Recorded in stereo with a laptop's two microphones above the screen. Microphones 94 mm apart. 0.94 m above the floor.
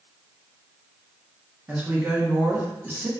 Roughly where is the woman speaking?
Centre.